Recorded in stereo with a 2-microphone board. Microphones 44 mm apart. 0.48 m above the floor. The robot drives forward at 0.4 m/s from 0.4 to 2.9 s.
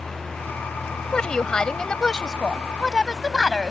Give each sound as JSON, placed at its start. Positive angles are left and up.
{"t": 1.1, "sound": "a woman speaking", "side_deg": 20}